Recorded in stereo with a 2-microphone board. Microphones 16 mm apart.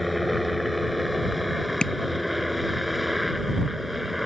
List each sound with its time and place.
0.0 s a helicopter: centre (ahead or behind); by 4.2 s 10° right (ahead or behind)
1.8 s tapping: 55° left (ahead or behind)